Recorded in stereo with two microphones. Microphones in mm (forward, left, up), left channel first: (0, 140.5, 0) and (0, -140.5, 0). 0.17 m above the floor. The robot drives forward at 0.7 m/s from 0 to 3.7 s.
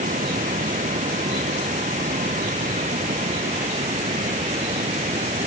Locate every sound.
0.0 s running water: 25° right (ahead or behind)